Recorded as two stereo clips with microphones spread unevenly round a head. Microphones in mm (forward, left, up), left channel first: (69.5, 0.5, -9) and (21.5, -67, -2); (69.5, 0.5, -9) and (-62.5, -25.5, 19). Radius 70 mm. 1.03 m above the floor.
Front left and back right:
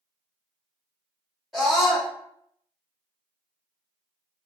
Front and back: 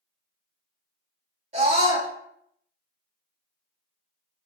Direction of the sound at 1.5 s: 145° left.